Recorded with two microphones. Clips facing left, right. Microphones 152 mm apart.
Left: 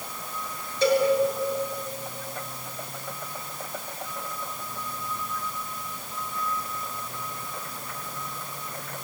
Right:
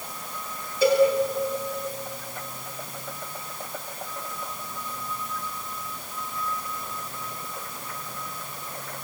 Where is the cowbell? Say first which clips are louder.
Right 3 dB; 10° right (ahead or behind), 7 m.